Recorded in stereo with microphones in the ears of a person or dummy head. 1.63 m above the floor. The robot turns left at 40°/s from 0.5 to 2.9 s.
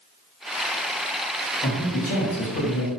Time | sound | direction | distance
1.6 | a man speaking | 155° left | 1.8 m